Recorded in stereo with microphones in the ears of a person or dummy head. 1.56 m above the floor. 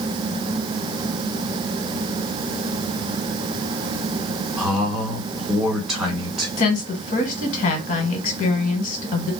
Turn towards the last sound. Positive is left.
turn(degrees=40)  # may be behind; listen again after turning